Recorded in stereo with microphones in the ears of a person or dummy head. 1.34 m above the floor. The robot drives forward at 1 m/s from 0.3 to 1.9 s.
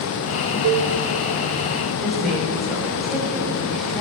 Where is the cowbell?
60° right (ahead or behind), 0.8 m; by 0.9 s 50° right (ahead or behind), 0.9 m.